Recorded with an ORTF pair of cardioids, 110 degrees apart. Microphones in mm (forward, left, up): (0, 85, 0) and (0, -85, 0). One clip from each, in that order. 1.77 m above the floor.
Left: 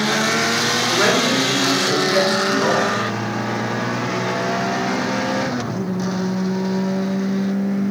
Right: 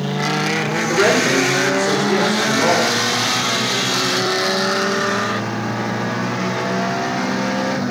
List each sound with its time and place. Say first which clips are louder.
0.9 s a woman speaking: right 4 dB; 30° right, 6.5 m